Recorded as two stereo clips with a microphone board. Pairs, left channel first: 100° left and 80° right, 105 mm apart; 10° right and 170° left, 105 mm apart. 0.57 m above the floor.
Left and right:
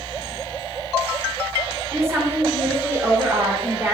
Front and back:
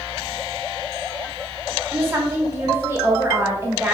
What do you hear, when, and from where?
1.9 s a woman speaking: 125° right, 0.8 m